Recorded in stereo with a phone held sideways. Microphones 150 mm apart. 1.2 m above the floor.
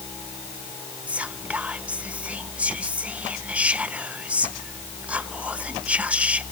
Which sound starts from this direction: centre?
Whispering, at 1.1 s.